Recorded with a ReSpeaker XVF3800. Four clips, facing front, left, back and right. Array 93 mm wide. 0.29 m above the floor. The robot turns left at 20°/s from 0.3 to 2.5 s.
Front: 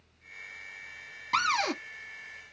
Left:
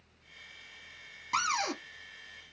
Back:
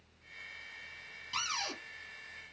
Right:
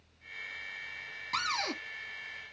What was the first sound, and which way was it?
A cupboard door, 15° left.